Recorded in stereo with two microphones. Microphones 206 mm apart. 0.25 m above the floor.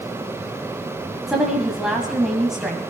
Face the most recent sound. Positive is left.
turn(degrees=0)  # may be behind; listen again after turning